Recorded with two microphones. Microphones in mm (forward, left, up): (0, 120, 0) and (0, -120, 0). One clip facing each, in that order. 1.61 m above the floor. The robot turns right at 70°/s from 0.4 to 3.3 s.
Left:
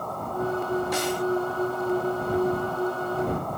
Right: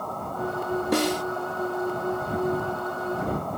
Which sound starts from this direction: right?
A snare drum, at 0.9 s.